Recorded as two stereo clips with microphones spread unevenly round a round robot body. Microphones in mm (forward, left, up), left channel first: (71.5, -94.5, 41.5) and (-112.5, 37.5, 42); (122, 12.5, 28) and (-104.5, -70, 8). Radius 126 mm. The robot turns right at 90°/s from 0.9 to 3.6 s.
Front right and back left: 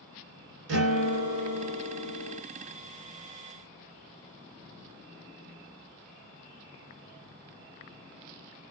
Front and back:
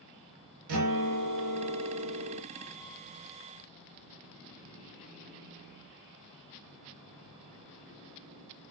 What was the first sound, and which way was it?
A guitar, 175° right.